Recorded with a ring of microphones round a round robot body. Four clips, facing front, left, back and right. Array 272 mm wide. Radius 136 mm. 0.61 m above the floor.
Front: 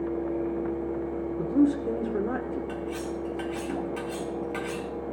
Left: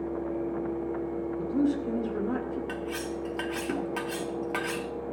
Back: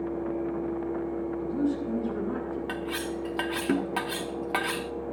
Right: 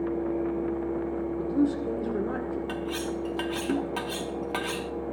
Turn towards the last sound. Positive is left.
turn(degrees=-170)